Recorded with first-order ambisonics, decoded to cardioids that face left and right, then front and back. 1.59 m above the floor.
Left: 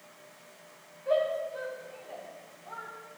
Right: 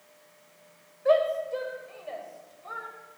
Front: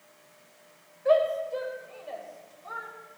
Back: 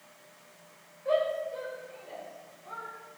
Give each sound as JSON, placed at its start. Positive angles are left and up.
{"t": 1.1, "sound": "a shout", "azimuth_deg": -60, "distance_m": 7.0}